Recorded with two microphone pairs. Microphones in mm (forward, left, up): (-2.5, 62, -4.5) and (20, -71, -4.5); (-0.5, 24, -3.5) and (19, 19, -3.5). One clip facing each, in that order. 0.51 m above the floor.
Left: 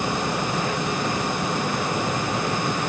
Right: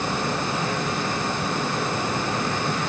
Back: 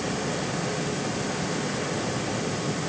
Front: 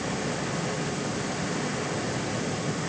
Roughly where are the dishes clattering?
No dishes clattering in this recording.